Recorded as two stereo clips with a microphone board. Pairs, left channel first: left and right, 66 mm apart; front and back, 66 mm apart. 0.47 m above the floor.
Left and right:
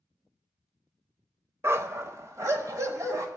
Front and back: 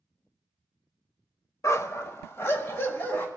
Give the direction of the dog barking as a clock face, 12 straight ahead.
1 o'clock.